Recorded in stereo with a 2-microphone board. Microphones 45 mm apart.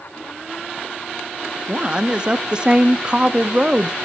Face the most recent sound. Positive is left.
turn(degrees=-25)  # may be behind; listen again after turning